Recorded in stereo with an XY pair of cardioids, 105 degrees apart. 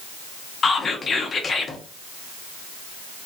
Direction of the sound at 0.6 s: 40° left.